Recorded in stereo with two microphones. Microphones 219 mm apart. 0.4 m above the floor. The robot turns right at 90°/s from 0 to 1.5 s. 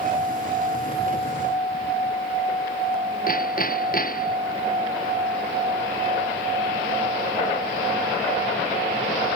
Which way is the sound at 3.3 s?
40° left (ahead or behind).